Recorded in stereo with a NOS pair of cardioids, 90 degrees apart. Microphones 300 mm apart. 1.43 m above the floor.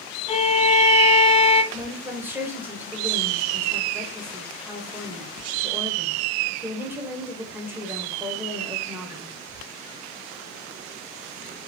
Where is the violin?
20° left, 0.6 m.